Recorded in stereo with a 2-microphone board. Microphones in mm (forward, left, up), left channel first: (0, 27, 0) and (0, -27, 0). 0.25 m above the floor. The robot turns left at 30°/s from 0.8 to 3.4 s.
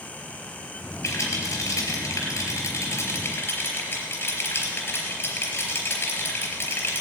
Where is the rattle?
60° left (ahead or behind), 3.5 m; by 7.0 s 45° left (ahead or behind), 3.5 m.